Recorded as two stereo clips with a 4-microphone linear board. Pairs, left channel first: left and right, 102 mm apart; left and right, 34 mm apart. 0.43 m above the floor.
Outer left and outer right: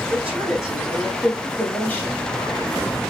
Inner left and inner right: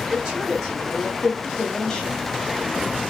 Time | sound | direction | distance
0.1 | a woman speaking | 20° right (ahead or behind) | 1.5 m